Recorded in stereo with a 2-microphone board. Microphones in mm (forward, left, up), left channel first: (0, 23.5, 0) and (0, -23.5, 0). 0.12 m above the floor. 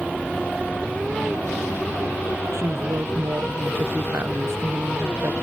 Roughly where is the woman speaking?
Right.